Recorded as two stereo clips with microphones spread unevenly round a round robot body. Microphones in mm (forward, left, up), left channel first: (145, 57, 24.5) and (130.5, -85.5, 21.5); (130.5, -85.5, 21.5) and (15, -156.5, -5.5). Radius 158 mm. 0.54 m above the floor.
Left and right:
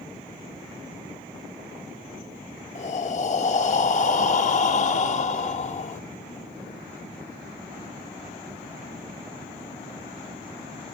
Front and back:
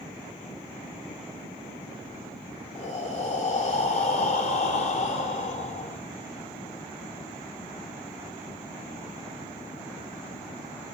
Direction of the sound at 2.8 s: 80° left.